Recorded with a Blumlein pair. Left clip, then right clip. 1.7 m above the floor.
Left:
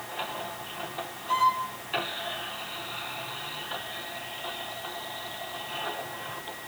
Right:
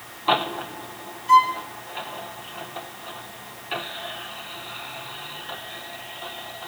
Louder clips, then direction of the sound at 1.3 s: Right 8 dB; 55° right.